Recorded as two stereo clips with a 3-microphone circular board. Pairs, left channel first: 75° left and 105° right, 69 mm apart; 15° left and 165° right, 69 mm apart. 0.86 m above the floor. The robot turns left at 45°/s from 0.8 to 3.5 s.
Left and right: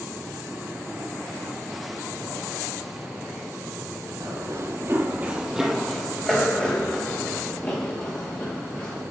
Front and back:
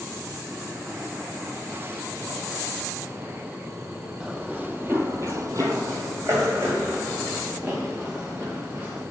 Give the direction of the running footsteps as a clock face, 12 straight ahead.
3 o'clock.